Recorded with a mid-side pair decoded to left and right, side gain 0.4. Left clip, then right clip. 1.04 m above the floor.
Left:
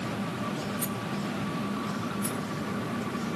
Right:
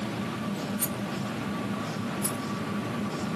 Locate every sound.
0.8 s a rattle: 30° right, 1.0 m
2.2 s a rattle: 30° right, 3 m